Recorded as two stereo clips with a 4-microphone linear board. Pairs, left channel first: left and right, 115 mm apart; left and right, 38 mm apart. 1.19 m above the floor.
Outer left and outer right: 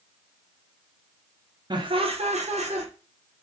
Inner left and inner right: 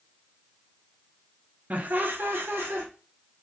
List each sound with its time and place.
1.7 s laughter: 40° right (ahead or behind), 0.6 m; by 2.9 s 75° right (ahead or behind), 0.6 m